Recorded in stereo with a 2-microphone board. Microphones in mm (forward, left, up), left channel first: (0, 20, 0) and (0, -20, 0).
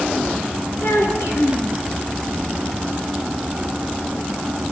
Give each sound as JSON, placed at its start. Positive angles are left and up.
{"t": 0.8, "sound": "a child speaking", "side_deg": 85, "distance_m": 5.0}